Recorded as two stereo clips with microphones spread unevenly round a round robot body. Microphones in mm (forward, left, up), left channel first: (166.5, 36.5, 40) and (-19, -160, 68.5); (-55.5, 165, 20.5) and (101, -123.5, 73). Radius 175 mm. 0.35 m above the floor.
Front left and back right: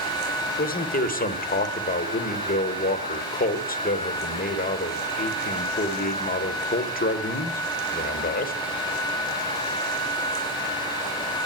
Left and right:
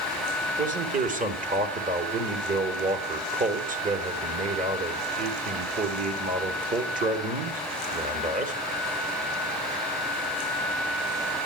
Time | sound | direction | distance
0.6 | a man speaking | 5° left | 1.2 m